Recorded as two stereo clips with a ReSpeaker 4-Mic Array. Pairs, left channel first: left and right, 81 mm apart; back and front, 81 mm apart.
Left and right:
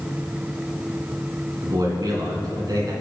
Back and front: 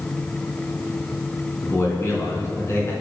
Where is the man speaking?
125° right, 4 m.